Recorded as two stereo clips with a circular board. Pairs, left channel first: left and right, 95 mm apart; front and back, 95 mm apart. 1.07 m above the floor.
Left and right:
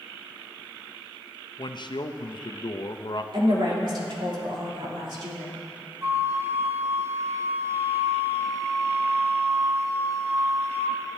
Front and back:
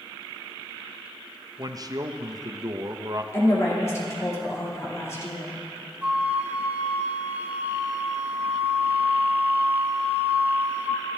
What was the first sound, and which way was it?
A man speaking, 130° left.